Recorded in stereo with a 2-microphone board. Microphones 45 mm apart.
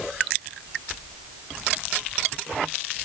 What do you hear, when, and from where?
Only background noise.